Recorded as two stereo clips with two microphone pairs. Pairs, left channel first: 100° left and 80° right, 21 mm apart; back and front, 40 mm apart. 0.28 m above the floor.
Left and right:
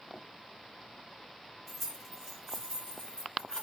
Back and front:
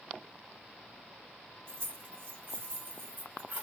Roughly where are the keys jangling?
Ahead.